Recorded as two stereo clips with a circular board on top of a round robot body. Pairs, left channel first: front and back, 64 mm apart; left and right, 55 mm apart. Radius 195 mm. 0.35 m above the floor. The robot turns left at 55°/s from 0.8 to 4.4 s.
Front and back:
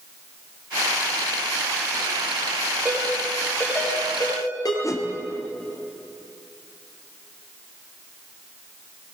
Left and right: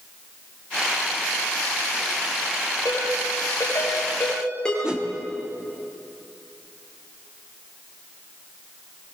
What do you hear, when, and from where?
2.9 s a ringtone: 100° left, 7 m; by 4.7 s 10° left, 7 m
4.8 s a whoosh: 15° right, 1.9 m